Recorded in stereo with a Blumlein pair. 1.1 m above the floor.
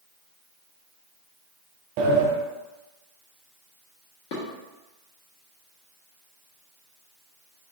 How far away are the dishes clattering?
About 1.4 m.